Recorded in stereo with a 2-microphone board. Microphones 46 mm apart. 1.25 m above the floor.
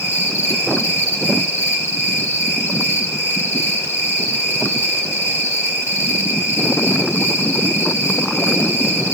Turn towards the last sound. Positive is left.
turn(degrees=60)  # may be behind; listen again after turning